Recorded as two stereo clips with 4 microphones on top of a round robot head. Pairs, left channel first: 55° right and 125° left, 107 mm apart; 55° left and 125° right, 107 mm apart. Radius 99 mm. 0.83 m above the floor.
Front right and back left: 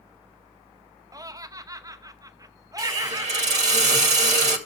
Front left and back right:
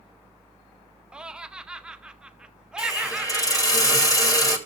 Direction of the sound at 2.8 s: 115° left.